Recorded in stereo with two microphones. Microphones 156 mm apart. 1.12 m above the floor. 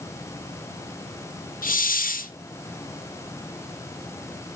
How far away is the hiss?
About 0.7 m.